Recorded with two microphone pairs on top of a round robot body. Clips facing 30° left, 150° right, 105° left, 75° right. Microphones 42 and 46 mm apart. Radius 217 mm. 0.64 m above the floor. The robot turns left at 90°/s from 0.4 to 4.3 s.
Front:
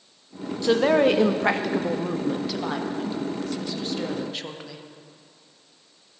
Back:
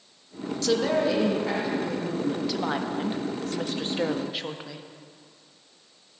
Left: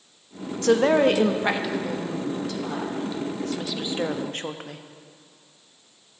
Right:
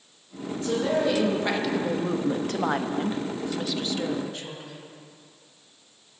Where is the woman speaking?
110° left, 1.4 m; by 4.8 s 140° left, 1.4 m.